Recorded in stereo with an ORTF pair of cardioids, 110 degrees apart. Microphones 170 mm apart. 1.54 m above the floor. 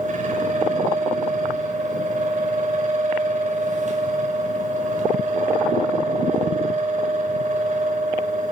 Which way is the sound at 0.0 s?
45° right.